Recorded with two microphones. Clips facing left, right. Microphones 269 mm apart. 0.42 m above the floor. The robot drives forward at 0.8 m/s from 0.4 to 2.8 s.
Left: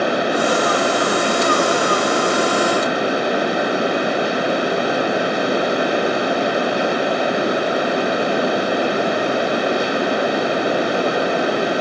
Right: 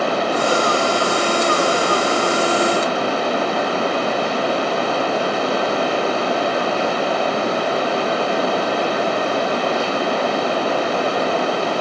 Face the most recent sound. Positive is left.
No sound to turn to.